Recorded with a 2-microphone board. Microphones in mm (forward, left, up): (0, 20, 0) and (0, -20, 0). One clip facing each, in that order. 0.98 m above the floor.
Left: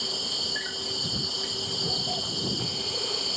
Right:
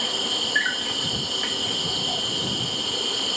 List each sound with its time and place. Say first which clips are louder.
0.0 s an insect: right 7 dB; 55° right (ahead or behind)